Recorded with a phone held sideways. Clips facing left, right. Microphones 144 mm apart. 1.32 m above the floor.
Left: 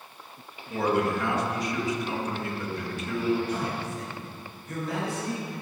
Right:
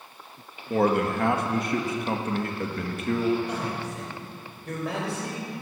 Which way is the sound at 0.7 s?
55° right (ahead or behind).